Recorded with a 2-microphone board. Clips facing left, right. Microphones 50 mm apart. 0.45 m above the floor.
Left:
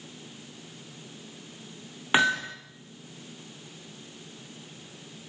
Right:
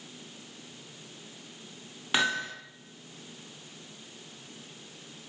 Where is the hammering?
25° left (ahead or behind), 10 m.